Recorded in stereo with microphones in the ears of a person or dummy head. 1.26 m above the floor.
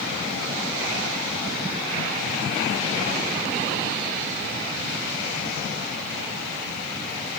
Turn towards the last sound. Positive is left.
No sound to turn to.